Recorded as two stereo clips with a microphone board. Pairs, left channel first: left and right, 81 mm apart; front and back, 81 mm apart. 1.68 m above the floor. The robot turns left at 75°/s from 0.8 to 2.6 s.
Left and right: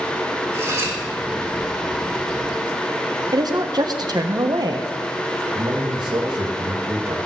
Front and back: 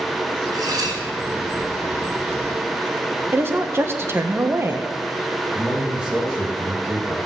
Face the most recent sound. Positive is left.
turn(degrees=-105)